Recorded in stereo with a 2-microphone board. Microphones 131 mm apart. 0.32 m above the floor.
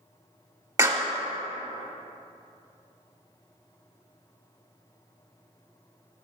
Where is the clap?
25° right (ahead or behind), 1.1 m.